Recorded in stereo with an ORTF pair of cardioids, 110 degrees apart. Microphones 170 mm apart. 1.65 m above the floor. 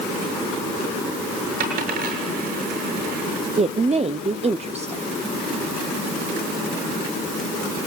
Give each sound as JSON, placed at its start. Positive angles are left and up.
{"t": 1.6, "sound": "a dropped coin", "azimuth_deg": -70, "distance_m": 7.5}
{"t": 3.6, "sound": "a woman speaking", "azimuth_deg": -40, "distance_m": 0.6}